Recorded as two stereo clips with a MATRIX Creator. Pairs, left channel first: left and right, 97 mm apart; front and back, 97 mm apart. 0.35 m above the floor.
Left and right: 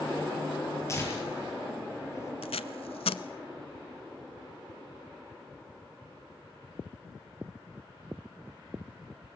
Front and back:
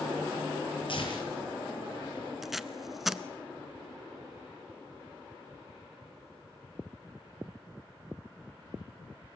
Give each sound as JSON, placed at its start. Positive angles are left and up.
{"t": 0.9, "sound": "tearing paper", "azimuth_deg": 30, "distance_m": 9.0}
{"t": 2.4, "sound": "tape being pulled", "azimuth_deg": 95, "distance_m": 0.8}